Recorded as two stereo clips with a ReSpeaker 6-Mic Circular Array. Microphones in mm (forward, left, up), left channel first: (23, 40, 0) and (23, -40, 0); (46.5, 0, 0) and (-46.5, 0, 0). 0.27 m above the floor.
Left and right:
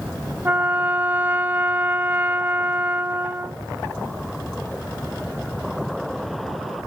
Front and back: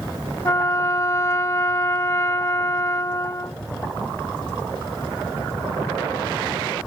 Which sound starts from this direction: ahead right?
A trumpet, at 0.5 s.